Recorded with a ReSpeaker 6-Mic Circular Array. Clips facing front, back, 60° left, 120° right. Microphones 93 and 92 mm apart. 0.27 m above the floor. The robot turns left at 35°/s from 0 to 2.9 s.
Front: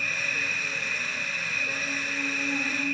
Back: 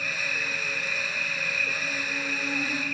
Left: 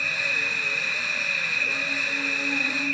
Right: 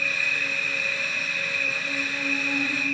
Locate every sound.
0.0 s an insect: 15° right, 1.0 m; by 3.0 s 115° right, 1.0 m